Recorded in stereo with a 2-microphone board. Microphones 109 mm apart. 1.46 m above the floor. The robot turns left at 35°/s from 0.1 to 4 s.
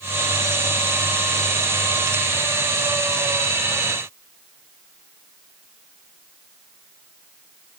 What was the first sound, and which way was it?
Only background noise.